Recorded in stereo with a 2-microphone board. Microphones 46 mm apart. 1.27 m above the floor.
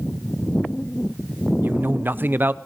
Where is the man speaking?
45° right (ahead or behind), 0.7 m.